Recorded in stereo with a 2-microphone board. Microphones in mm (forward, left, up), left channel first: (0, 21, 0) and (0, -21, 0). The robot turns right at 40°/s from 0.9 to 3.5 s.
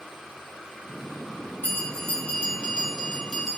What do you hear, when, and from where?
1.6 s a bell: 105° left, 3 m; by 3.6 s straight behind, 3 m